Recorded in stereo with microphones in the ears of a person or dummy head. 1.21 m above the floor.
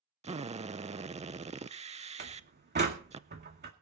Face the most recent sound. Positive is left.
turn(degrees=-40)  # may be behind; listen again after turning